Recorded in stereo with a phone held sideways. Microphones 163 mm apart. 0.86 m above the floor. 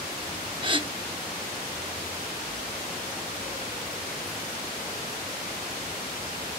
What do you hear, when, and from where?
0.6 s a gasp: 30° right (ahead or behind), 0.7 m